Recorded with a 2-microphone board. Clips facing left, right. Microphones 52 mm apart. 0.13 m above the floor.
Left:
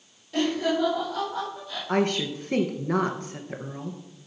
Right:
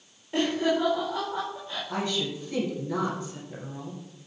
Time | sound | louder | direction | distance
0.3 | laughter | even | 25° right (ahead or behind) | 5.5 m
1.9 | a woman speaking | left 6 dB | 50° left (ahead or behind) | 2.5 m